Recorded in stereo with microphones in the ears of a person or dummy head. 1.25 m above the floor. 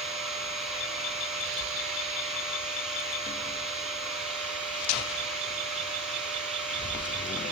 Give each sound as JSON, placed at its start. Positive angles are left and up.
{"t": 0.0, "sound": "a machine running", "side_deg": -5, "distance_m": 7.0}